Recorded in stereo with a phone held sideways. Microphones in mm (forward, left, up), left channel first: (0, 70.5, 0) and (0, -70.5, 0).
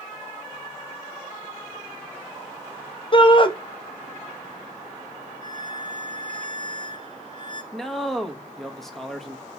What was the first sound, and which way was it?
A shout, 35° left (ahead or behind).